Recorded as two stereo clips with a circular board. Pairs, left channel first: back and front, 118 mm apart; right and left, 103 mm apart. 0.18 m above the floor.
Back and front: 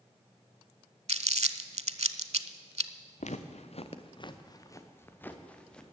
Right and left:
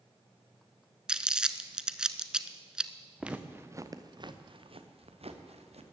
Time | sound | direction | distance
1.1 | crumpling | 10° left | 0.5 m
3.2 | footsteps | 170° left | 1.2 m